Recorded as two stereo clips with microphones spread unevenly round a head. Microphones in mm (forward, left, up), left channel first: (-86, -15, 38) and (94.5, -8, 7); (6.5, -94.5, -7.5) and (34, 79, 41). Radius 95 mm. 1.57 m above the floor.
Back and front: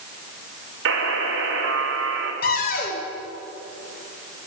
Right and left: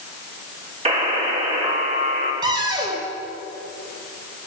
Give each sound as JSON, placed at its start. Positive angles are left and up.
{"t": 0.8, "sound": "a buzzer", "azimuth_deg": 30, "distance_m": 6.0}
{"t": 2.4, "sound": "a cupboard door", "azimuth_deg": 145, "distance_m": 3.0}